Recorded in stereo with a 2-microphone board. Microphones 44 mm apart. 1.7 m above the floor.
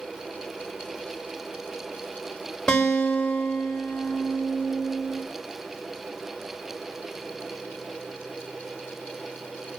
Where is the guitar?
10° left (ahead or behind), 5 m.